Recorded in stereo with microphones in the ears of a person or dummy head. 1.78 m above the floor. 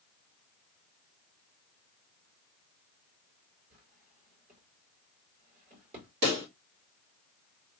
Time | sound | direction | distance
3.7 | a drawer | 35° right (ahead or behind) | 3 m
6.2 | a pop | 55° right (ahead or behind) | 1.9 m